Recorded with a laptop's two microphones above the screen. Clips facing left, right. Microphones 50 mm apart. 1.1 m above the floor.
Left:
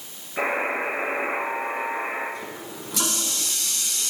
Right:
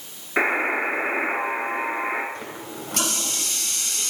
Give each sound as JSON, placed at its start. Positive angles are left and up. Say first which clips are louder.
{"t": 0.4, "sound": "a buzzer", "louder": "right 3 dB", "side_deg": -85, "distance_m": 5.0}
{"t": 2.4, "sound": "a running tap", "louder": "right 1 dB", "side_deg": -55, "distance_m": 3.5}